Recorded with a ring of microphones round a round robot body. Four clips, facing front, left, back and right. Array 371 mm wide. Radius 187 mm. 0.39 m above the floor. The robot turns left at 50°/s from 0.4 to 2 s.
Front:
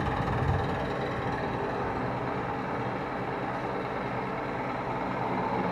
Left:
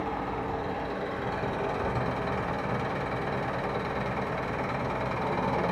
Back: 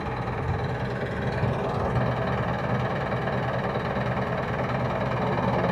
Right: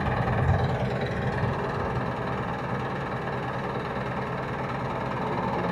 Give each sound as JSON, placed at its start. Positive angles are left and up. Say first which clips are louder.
{"t": 0.0, "sound": "an engine running", "louder": "right 4 dB, front 1 dB", "azimuth_deg": -95, "distance_m": 1.0}